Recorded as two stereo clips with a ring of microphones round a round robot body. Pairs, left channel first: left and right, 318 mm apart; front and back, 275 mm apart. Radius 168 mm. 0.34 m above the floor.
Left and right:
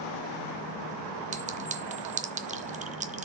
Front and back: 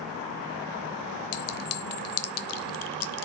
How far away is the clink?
About 0.8 m.